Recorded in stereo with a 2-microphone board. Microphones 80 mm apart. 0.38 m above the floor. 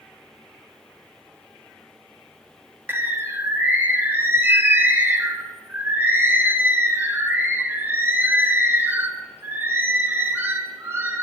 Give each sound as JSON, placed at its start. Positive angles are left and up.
{"t": 2.9, "sound": "a bird", "side_deg": -25, "distance_m": 0.5}